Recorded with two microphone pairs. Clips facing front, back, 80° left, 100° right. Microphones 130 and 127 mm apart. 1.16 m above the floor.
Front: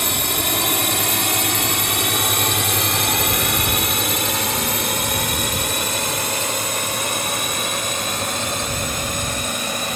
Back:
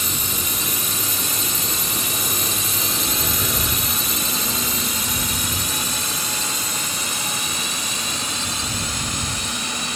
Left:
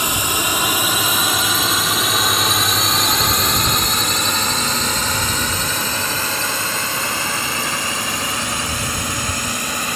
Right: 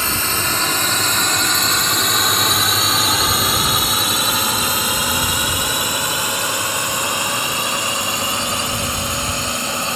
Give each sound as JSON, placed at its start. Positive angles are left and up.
{"t": 0.0, "sound": "a drone", "azimuth_deg": 5}